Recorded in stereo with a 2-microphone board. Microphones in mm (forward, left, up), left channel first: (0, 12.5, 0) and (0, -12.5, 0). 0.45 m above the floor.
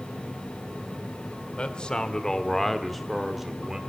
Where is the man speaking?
40° left (ahead or behind), 1.9 m; by 3.8 s 25° right (ahead or behind), 1.6 m.